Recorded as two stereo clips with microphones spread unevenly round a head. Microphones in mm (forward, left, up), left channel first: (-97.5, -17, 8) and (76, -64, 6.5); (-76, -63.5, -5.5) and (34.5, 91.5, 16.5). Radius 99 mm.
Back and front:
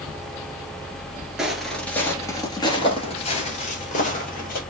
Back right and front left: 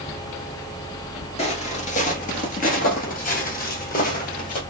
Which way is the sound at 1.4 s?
100° right.